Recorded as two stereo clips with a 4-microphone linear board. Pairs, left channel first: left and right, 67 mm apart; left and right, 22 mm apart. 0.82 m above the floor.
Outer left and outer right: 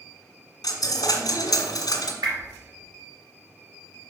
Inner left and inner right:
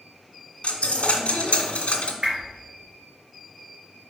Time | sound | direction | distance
0.6 | a dropped coin | 65° left (ahead or behind) | 1.3 m
2.2 | a whoosh | 75° right (ahead or behind) | 3 m